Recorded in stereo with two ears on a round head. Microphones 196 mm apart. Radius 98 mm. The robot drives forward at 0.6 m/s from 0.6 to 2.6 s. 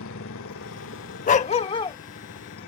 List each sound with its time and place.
0.0 s a motorcycle: 70° left (ahead or behind); by 2.7 s 60° left (ahead or behind)
1.3 s a dog barking: 35° left (ahead or behind); by 2.0 s 20° left (ahead or behind)